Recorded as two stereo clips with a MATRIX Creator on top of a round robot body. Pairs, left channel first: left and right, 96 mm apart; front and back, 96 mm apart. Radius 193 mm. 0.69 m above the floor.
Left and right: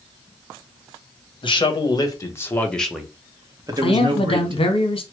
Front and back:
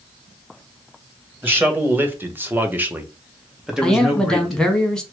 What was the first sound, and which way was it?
A man speaking, 110° left.